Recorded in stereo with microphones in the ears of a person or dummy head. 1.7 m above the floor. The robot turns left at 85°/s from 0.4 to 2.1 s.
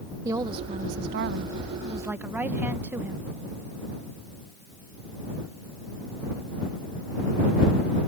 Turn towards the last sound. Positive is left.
turn(degrees=-170)